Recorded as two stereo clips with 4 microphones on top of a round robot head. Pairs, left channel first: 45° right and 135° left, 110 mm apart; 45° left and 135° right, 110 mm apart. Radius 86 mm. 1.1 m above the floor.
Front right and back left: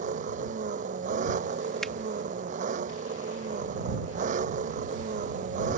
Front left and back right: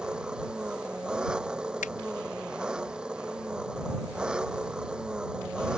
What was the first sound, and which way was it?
An engine running, 145° left.